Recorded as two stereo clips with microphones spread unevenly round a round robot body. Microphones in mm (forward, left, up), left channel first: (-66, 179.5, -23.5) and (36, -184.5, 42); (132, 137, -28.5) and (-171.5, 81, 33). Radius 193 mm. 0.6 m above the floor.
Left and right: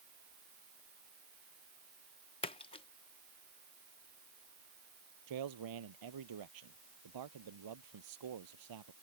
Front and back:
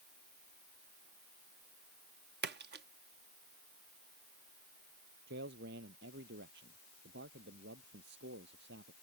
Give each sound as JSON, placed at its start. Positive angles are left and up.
{"t": 2.4, "sound": "a splash", "azimuth_deg": 145}
{"t": 5.3, "sound": "a man speaking", "azimuth_deg": -105}